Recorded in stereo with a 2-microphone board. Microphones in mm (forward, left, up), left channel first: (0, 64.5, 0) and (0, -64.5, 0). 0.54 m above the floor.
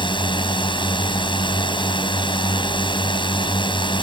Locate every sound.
0.0 s a drone: 40° left (ahead or behind)